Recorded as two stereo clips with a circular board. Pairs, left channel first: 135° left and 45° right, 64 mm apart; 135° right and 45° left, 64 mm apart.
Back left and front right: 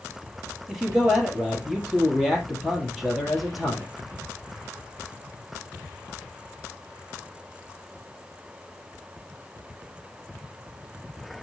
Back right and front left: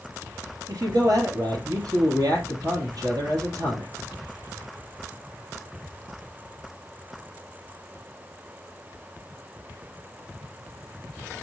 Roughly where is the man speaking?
Ahead left.